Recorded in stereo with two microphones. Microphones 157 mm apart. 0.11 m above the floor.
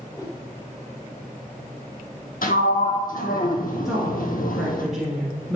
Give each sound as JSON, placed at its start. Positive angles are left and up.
{"t": 0.1, "sound": "a whoosh", "side_deg": 20, "distance_m": 1.6}
{"t": 2.4, "sound": "a sliding door", "side_deg": 75, "distance_m": 1.0}
{"t": 3.9, "sound": "a woman speaking", "side_deg": -5, "distance_m": 1.8}